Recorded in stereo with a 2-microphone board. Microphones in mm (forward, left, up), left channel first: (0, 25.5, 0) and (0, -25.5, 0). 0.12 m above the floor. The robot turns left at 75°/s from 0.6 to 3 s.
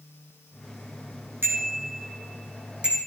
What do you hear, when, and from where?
1.4 s a bicycle bell: 50° right (ahead or behind), 4.5 m; by 3.0 s 10° right (ahead or behind), 4.5 m